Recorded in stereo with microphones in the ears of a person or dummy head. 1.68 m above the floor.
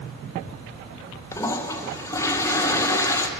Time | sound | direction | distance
1.3 | a toilet flushing | 15° left (ahead or behind) | 1.1 m